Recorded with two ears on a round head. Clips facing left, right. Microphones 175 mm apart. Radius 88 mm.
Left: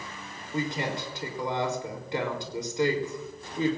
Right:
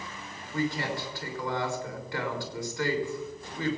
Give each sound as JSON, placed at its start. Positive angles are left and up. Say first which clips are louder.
{"t": 0.5, "sound": "a woman speaking", "louder": "even", "side_deg": 20, "distance_m": 3.0}